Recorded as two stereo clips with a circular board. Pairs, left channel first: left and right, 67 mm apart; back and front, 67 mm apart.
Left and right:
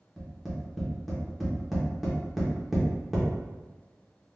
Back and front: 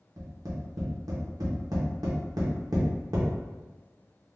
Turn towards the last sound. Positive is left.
turn(degrees=0)